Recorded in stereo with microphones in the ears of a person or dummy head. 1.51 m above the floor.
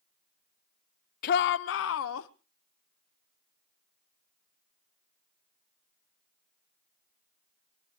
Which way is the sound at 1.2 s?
50° left (ahead or behind).